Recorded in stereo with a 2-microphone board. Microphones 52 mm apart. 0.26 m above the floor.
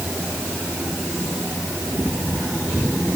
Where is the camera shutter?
No camera shutter in this recording.